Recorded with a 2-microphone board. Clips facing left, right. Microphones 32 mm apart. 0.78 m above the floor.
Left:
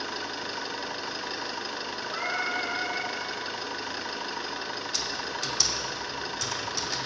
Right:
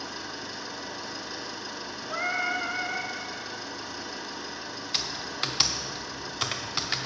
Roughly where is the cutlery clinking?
No cutlery clinking in this recording.